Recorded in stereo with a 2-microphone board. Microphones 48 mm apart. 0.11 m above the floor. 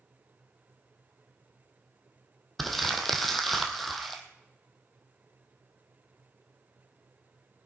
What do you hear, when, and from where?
2.6 s crumpling: 5° left (ahead or behind), 1.7 m